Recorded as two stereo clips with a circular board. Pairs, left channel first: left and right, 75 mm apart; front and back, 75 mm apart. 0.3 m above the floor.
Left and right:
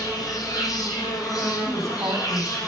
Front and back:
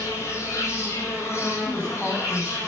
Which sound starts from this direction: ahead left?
An insect, at 0.0 s.